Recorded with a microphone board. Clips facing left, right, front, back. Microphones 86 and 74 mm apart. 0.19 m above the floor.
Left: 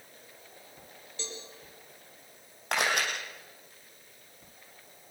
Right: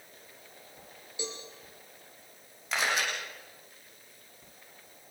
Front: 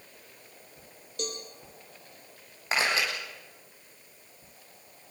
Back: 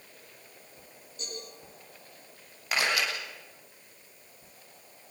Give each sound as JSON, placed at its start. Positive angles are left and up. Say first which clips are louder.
{"t": 1.2, "sound": "a cowbell", "louder": "right 3 dB, front 6 dB", "azimuth_deg": -15, "distance_m": 5.5}
{"t": 2.7, "sound": "a camera shutter", "louder": "left 1 dB, front 1 dB", "azimuth_deg": 60, "distance_m": 8.0}